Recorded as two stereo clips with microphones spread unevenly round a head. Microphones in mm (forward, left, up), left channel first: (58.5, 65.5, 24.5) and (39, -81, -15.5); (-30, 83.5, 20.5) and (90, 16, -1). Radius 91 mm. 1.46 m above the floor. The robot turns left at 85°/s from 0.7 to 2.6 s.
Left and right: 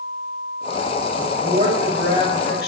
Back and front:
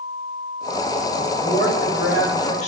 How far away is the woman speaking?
About 3 m.